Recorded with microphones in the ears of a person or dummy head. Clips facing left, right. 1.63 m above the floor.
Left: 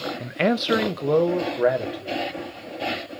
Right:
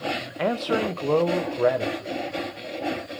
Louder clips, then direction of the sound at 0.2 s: Left 8 dB; 40° left (ahead or behind).